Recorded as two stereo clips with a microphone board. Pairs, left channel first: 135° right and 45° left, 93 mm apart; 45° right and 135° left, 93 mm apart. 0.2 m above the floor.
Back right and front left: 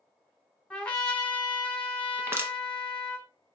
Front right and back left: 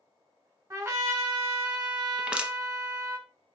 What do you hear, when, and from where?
0.7 s a trumpet: 155° left, 1.5 m
2.2 s crushing: 65° left, 0.5 m